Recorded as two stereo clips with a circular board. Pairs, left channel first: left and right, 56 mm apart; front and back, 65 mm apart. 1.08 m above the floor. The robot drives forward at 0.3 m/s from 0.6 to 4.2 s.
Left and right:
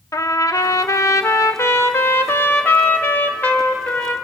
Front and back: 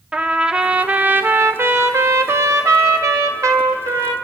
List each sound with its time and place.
0.1 s a trumpet: 105° left, 0.7 m; by 4.1 s 155° left, 1.4 m